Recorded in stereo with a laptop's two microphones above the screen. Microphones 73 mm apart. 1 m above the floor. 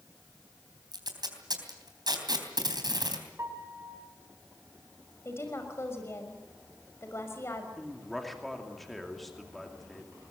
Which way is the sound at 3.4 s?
40° right (ahead or behind).